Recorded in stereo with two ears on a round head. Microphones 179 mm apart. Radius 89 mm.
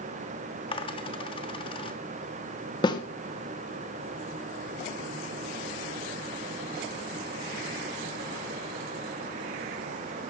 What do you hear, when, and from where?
0.7 s a dropped coin: 25° left (ahead or behind), 1.3 m
2.8 s a snare drum: 20° left (ahead or behind), 1.7 m